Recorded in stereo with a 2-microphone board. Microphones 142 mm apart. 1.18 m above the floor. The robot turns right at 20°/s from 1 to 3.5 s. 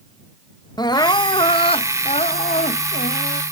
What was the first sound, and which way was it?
Crying, 30° left.